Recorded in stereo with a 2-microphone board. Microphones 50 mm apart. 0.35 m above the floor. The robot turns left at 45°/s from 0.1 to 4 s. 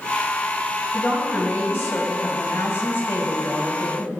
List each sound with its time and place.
0.9 s a woman speaking: 155° left, 2.5 m; by 4.1 s 20° left, 2.5 m